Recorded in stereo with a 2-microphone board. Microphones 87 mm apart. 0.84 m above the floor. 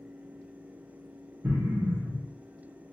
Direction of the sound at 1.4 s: 30° right (ahead or behind).